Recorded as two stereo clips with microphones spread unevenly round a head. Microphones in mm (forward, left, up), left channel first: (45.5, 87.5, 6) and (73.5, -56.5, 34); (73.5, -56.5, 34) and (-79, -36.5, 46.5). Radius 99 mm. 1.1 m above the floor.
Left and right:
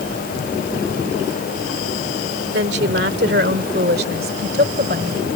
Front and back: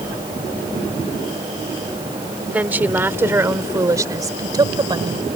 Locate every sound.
2.5 s a woman speaking: 110° right; by 5.4 s 125° right